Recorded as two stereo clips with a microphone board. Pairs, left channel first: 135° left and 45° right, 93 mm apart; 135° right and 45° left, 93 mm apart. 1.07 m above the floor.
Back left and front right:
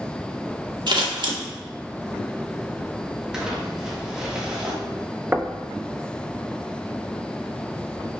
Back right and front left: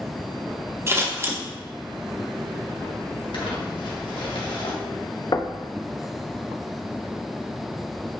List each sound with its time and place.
0.9 s scissors: 15° right, 1.5 m
3.3 s crumpling: 125° right, 1.9 m
5.3 s knocking: 110° right, 0.7 m